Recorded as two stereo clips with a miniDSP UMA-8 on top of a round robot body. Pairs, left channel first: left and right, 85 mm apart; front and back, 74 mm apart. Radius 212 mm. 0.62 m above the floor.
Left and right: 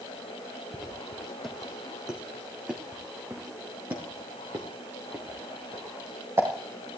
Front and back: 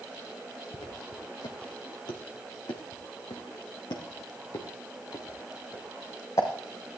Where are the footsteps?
10° left, 2.5 m; by 6.5 s 35° right, 5 m.